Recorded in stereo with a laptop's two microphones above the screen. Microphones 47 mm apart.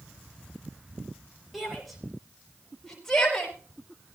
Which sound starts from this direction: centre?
A shout, at 1.5 s.